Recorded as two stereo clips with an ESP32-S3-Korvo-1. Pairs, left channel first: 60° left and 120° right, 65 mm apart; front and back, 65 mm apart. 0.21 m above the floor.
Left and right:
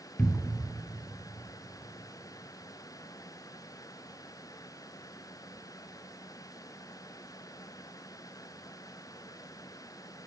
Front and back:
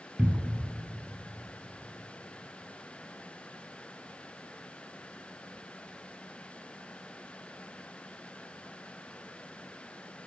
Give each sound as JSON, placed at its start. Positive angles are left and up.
{"t": 0.2, "sound": "a cupboard door", "azimuth_deg": 130, "distance_m": 0.6}